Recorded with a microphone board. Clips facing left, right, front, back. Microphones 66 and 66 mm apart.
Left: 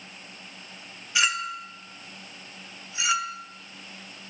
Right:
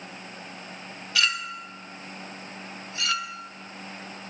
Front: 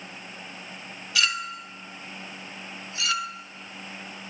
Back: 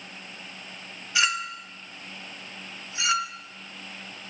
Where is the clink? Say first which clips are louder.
Left 1 dB, back 1 dB; 140° left, 0.5 m.